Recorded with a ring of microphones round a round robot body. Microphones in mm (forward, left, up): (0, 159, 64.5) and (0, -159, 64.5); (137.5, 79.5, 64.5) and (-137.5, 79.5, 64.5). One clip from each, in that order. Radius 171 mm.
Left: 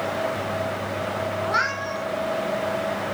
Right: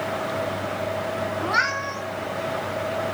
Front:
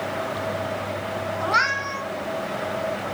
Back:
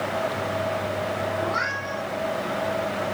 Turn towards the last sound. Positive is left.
turn(degrees=-5)